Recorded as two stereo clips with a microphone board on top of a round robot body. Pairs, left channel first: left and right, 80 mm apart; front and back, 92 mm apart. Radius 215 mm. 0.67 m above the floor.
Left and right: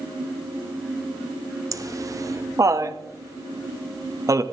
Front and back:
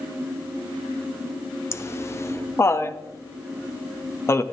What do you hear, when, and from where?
1.7 s laughter: 55° right, 1.4 m